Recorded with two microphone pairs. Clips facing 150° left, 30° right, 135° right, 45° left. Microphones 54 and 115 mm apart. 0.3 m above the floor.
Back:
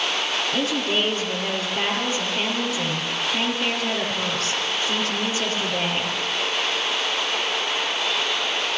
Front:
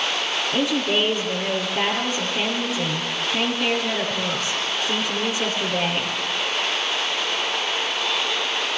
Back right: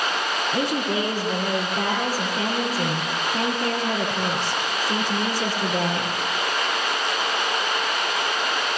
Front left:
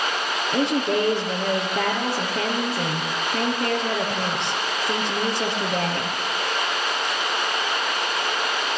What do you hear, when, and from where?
0.5 s a woman speaking: 50° left, 7.5 m